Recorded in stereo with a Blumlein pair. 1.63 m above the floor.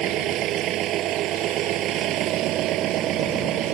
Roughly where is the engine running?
Ahead right.